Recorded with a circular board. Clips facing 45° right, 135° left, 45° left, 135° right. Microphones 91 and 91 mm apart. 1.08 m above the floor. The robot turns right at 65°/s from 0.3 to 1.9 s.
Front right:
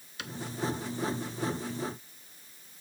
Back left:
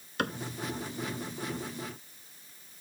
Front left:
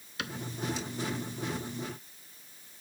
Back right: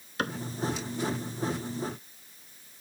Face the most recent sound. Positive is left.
turn(degrees=-80)